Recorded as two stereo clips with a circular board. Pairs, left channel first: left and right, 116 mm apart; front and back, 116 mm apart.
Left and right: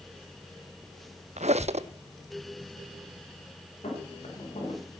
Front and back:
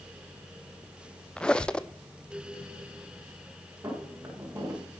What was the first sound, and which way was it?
A squeak, 80° right.